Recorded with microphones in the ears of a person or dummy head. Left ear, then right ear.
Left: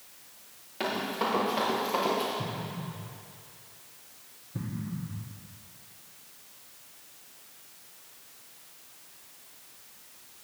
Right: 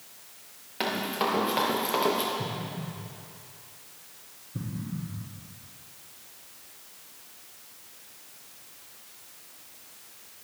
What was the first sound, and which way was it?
Running footsteps, 20° right (ahead or behind).